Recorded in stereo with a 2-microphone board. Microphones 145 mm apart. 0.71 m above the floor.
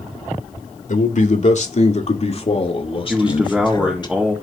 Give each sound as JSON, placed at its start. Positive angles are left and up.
{"t": 0.9, "sound": "a man speaking", "side_deg": 60, "distance_m": 1.7}
{"t": 3.1, "sound": "a man speaking", "side_deg": -5, "distance_m": 2.0}